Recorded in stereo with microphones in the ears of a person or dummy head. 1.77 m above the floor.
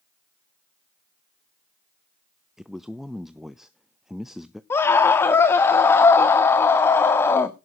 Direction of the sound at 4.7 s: 15° left (ahead or behind).